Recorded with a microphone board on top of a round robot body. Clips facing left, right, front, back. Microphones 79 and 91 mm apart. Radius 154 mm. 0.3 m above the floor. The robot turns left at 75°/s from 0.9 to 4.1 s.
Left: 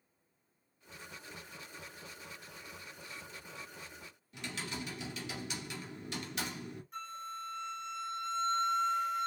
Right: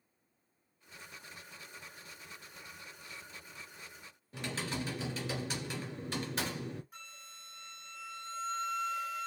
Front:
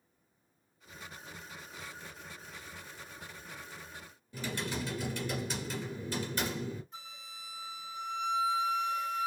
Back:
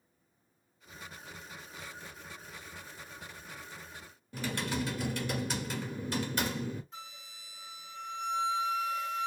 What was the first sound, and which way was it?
Typing on a keyboard, 145° right.